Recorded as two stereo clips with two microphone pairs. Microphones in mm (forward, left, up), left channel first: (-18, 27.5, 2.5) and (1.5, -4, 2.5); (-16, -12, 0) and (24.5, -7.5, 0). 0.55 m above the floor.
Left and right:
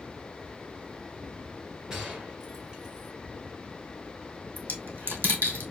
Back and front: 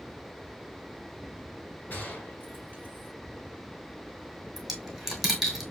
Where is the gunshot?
130° right, 2 m.